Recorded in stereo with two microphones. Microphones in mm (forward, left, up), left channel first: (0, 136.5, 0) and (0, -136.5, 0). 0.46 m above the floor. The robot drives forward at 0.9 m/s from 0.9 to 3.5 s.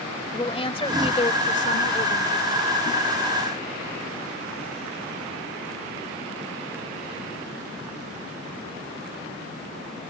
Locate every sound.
0.3 s a woman speaking: 20° left (ahead or behind); by 2.6 s 35° left (ahead or behind)